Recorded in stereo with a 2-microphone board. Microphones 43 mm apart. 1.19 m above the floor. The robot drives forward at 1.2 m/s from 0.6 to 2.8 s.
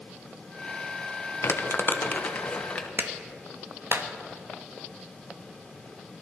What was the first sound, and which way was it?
Crumpling, 65° left (ahead or behind).